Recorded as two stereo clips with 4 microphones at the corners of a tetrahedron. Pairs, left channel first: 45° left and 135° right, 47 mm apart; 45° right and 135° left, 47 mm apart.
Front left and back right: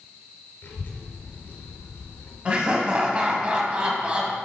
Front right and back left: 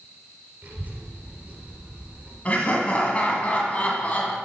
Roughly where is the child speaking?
Left.